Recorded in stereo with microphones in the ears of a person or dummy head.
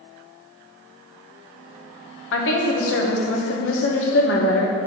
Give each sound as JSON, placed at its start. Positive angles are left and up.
{"t": 2.3, "sound": "a woman speaking", "side_deg": 65, "distance_m": 1.4}